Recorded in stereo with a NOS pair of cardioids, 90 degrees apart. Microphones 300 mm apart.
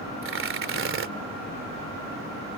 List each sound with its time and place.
0.2 s tearing paper: 45° right